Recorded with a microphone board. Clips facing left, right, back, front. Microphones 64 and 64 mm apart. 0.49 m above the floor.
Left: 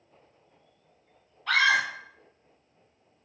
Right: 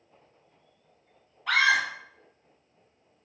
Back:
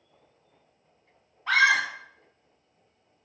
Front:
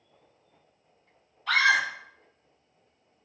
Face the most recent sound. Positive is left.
turn(degrees=-160)